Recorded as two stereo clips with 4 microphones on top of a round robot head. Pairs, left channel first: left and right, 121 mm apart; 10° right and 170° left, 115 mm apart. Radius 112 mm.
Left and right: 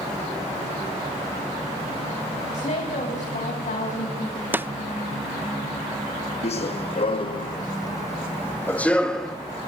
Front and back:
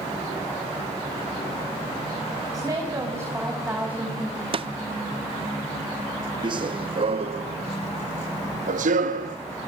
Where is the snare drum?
160° right, 0.8 m.